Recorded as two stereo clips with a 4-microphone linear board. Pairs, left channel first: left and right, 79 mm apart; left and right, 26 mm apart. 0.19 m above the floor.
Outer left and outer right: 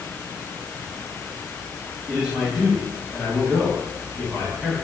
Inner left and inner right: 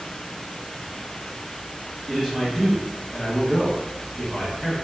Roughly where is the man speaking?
Centre.